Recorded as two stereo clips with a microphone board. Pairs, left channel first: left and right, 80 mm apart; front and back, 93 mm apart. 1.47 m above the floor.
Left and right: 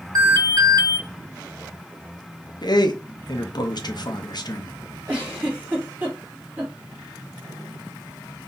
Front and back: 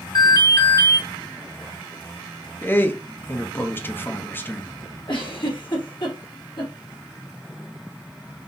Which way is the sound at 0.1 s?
50° right.